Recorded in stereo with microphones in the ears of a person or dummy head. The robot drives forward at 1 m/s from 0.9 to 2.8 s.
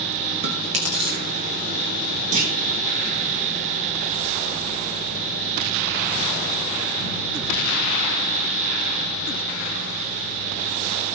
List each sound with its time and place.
0.4 s chewing: 35° right (ahead or behind), 1.2 m; by 1.2 s 30° right (ahead or behind), 1.4 m
2.3 s a clunk: 50° right (ahead or behind), 1.3 m; by 2.5 s 55° right (ahead or behind), 1.2 m